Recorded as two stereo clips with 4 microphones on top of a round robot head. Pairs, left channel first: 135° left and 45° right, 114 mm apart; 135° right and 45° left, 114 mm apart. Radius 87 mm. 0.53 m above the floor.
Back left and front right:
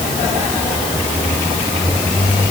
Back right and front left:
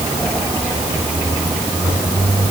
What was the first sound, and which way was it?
Only background noise.